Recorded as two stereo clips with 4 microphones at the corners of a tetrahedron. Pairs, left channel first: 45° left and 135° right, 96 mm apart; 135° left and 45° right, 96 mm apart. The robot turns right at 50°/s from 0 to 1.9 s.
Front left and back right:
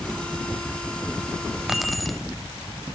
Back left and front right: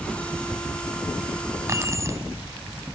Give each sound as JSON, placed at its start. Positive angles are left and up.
{"t": 1.7, "sound": "keys jangling", "azimuth_deg": -55, "distance_m": 0.9}